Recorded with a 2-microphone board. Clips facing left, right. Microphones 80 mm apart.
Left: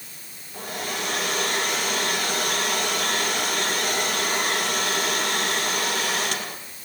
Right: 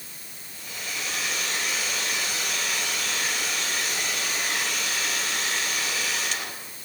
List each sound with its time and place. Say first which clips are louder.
0.5 s a hair dryer: left 7 dB; 50° left (ahead or behind), 4.5 m